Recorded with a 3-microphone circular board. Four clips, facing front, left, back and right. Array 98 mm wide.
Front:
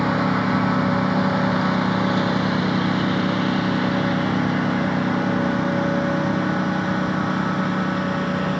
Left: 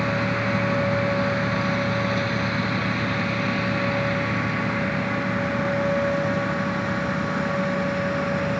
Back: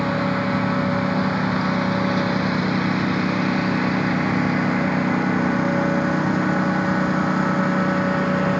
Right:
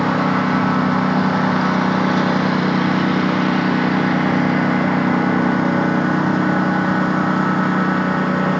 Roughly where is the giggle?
I don't hear a giggle.